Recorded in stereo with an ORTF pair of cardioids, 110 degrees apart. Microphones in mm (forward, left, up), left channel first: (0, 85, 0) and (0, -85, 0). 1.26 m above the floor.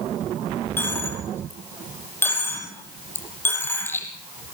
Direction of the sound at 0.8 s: 15° left.